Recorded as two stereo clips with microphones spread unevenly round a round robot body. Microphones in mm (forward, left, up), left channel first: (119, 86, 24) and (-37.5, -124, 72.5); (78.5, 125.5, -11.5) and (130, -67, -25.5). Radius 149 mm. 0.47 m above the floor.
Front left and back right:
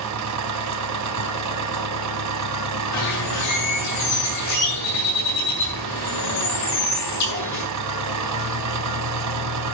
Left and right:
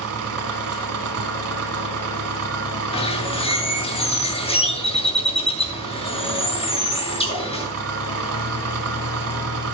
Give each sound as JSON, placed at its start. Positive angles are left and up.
{"t": 0.0, "sound": "an engine running", "azimuth_deg": -105, "distance_m": 1.6}
{"t": 2.9, "sound": "a bird", "azimuth_deg": 45, "distance_m": 7.5}